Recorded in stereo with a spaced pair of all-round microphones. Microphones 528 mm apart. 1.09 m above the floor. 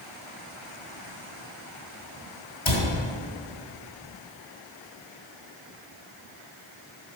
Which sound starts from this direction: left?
A cupboard door, at 2.6 s.